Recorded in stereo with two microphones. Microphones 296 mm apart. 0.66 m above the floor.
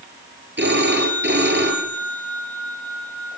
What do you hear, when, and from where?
0.6 s a phone ringing: 40° right (ahead or behind), 7 m